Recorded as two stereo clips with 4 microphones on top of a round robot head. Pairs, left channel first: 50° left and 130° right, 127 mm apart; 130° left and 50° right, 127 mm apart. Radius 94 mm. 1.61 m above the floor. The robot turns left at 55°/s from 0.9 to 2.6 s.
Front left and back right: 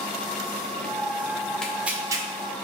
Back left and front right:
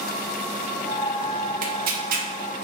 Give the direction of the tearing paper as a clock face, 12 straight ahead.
1 o'clock.